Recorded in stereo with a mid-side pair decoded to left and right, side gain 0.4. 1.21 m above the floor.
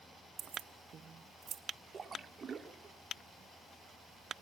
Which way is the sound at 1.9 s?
40° right.